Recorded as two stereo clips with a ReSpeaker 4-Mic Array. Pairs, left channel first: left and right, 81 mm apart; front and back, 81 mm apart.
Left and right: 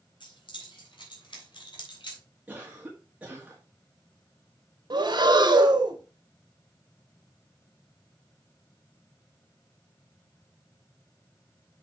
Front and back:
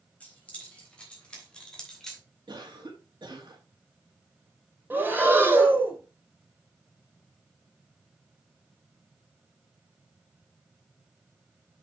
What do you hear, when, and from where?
0.2 s keys jangling: 75° left, 4 m; by 2.2 s 85° left, 2.5 m
2.5 s a cough: 160° right, 1.9 m
4.9 s breathing: 115° right, 2 m